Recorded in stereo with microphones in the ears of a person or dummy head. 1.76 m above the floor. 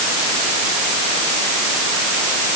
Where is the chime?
I don't hear a chime.